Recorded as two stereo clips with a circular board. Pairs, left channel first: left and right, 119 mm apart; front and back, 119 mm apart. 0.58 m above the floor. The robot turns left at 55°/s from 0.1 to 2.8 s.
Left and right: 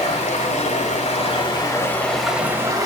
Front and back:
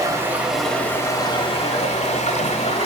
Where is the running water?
120° left, 1.3 m; by 2.9 s 30° right, 1.3 m.